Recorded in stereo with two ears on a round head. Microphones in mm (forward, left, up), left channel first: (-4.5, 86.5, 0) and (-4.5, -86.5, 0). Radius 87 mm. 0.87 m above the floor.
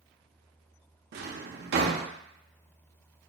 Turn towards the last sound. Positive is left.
turn(degrees=-55)  # may be behind; listen again after turning